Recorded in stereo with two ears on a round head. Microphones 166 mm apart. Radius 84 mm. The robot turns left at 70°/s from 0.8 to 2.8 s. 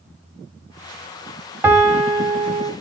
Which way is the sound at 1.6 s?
10° right (ahead or behind).